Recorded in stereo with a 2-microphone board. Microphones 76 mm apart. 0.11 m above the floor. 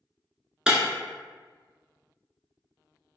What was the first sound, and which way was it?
Breaking glass, 10° right (ahead or behind).